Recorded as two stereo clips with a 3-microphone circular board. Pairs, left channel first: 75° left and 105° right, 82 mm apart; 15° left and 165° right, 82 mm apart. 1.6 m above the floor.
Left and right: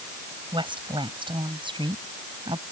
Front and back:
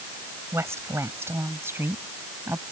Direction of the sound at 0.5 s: 110° right.